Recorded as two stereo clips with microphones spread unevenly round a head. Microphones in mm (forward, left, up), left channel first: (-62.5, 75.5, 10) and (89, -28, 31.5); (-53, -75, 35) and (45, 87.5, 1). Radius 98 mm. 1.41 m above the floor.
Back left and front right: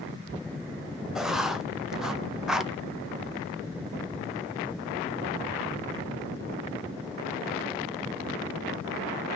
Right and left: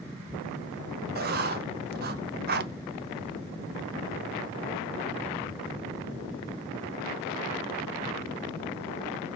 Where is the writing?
55° left, 0.7 m.